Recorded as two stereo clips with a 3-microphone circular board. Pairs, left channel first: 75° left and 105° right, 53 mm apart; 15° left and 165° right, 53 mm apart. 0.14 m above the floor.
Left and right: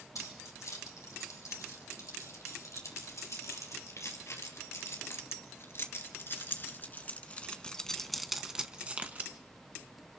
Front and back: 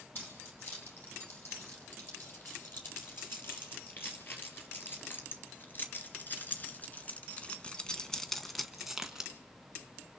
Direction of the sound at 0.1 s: 65° left.